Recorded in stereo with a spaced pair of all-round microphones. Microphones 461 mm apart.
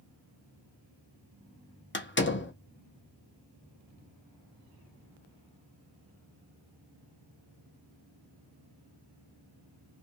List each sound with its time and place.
1.9 s a door slam: 25° left (ahead or behind), 0.7 m